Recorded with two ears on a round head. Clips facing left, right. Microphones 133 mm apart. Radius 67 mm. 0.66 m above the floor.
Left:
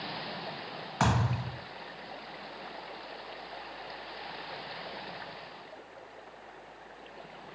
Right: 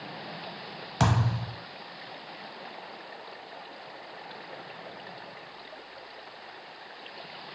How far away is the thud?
About 0.7 m.